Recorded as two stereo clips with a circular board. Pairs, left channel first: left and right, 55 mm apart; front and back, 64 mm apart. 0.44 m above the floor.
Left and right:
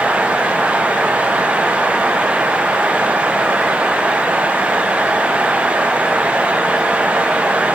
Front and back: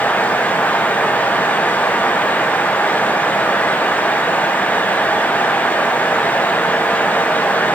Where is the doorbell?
No doorbell in this recording.